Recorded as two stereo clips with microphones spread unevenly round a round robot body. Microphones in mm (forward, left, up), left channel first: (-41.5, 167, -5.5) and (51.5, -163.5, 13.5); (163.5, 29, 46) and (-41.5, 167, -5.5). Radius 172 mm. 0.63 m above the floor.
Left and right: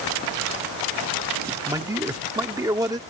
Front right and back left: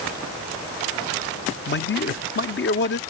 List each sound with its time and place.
1.7 s a man speaking: 5° left